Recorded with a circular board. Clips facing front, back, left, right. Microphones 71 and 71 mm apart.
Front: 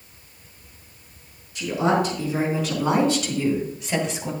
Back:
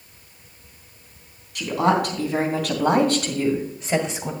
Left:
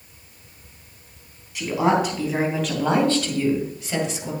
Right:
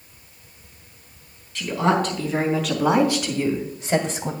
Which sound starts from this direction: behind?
A woman speaking, at 1.6 s.